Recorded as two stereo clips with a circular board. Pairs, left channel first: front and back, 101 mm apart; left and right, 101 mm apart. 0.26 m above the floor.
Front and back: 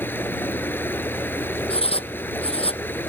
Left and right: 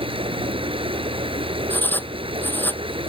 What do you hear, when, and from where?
0.0 s running water: 70° right
1.7 s writing: 20° left